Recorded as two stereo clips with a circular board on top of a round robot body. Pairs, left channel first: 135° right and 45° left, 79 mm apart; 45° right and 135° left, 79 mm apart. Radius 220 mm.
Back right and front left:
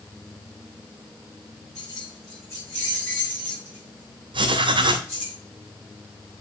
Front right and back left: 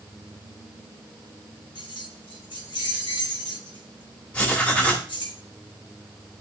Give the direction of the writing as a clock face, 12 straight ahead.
11 o'clock.